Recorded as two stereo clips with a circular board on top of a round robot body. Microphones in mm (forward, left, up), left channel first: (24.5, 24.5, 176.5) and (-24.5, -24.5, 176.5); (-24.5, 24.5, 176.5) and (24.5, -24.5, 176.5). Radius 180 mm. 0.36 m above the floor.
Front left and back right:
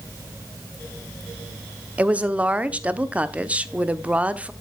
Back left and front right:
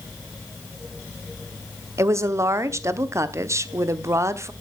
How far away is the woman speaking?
About 1.3 m.